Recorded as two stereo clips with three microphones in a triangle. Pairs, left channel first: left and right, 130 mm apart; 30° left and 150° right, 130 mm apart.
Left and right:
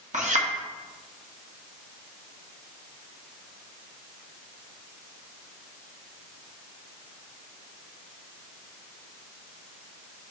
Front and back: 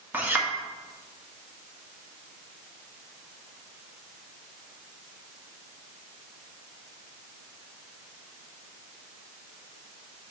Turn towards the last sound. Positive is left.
turn(degrees=-75)